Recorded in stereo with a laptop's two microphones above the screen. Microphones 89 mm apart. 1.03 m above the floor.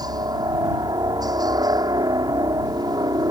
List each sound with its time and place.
0.0 s a helicopter: 50° right (ahead or behind)